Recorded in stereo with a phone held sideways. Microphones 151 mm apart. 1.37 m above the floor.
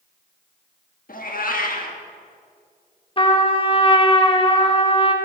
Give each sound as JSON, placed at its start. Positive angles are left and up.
{"t": 1.1, "sound": "a cat meowing", "side_deg": 65, "distance_m": 1.4}
{"t": 3.2, "sound": "a trumpet", "side_deg": 35, "distance_m": 1.1}